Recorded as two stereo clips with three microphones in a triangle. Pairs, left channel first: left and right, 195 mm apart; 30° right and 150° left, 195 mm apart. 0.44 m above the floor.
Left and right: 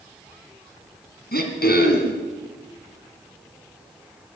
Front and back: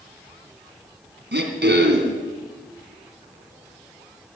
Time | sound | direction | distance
1.3 | throat clearing | 125° left | 2 m